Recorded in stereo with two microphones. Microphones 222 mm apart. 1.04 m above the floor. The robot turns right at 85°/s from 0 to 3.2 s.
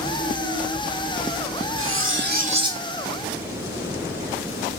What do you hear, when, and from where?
1.8 s cutlery clinking: 95° right, 0.7 m; by 2.8 s 5° right, 0.7 m